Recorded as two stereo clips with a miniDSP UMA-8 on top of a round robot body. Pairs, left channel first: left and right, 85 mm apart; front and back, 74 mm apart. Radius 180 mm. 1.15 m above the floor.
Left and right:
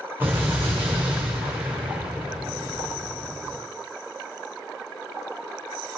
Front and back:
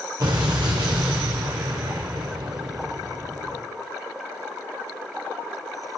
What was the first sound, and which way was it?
An explosion, 155° right.